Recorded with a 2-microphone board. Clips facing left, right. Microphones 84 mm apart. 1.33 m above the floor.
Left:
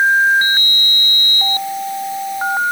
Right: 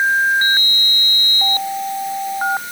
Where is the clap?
I don't hear a clap.